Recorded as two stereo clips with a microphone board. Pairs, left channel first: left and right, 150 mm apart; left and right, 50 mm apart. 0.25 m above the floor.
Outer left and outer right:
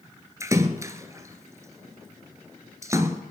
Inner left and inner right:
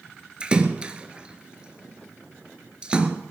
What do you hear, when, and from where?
0.4 s a splash: 20° right (ahead or behind), 1.1 m